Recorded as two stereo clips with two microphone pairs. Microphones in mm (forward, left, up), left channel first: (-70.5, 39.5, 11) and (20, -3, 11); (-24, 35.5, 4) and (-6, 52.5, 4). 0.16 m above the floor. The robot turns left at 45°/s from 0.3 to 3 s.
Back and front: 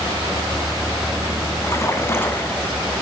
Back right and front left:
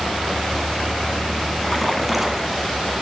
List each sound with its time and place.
1.6 s a splash: 140° left, 1.3 m; by 2.8 s 90° left, 1.3 m